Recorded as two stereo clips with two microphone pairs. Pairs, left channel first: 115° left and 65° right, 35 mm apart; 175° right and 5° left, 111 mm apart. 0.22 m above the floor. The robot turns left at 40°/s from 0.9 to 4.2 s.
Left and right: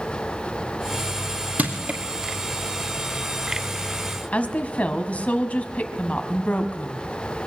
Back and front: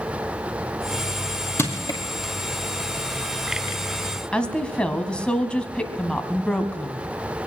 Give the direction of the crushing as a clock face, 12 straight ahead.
4 o'clock.